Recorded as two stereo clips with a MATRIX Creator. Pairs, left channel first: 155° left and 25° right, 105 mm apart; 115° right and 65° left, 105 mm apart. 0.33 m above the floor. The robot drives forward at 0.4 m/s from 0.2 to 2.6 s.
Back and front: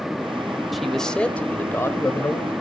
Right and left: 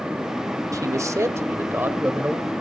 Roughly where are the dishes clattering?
No dishes clattering in this recording.